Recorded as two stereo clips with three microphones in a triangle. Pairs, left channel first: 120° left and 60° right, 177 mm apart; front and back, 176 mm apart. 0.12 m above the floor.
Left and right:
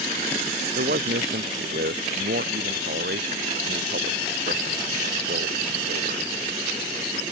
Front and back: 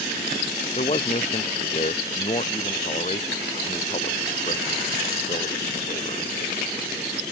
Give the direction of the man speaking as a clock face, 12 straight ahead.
2 o'clock.